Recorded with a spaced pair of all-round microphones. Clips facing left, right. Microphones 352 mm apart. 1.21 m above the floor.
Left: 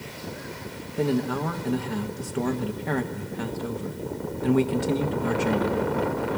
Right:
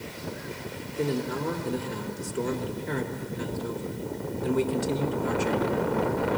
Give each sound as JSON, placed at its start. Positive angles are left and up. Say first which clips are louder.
{"t": 1.0, "sound": "a man speaking", "louder": "left 4 dB", "side_deg": 70, "distance_m": 1.4}